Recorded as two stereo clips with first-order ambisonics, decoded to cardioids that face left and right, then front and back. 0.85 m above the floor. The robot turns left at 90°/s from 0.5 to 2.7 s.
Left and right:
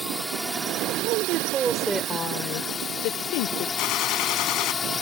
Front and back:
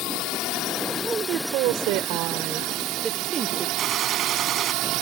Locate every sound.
0.0 s a drone: 5° right; by 5.0 s 160° left
1.0 s a woman speaking: 100° right; by 3.7 s 110° left
3.8 s a gunshot: 115° left